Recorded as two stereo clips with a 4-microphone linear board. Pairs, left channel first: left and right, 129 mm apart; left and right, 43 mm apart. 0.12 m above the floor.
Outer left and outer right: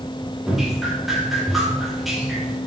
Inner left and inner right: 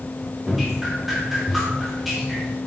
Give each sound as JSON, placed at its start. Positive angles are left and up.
{"t": 0.5, "sound": "dripping", "side_deg": 0, "distance_m": 6.5}